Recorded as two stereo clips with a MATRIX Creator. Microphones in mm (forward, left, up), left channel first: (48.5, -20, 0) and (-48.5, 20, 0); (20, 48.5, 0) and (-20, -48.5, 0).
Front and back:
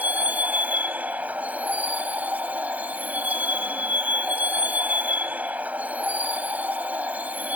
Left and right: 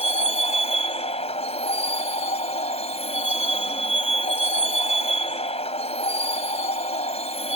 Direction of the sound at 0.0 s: 80° left.